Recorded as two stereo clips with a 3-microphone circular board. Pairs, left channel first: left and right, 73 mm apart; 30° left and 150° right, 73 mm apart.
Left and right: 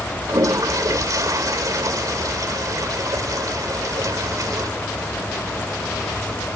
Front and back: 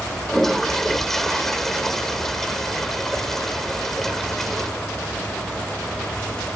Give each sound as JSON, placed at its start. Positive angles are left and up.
{"t": 0.3, "sound": "a toilet flushing", "azimuth_deg": -55}